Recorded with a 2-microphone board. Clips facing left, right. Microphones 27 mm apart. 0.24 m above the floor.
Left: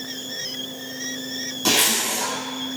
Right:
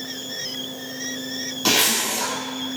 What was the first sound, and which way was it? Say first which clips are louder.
A zipper: even; 25° right (ahead or behind).